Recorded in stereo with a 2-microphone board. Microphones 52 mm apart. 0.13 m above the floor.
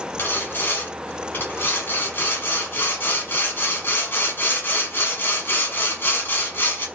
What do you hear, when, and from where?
0.2 s sawing: 35° left (ahead or behind), 2 m